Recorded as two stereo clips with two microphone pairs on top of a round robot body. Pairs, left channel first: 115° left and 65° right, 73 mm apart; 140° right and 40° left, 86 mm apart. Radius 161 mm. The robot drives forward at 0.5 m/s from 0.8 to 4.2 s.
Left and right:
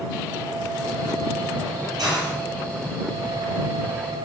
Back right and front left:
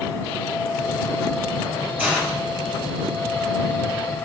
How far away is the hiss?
About 7 m.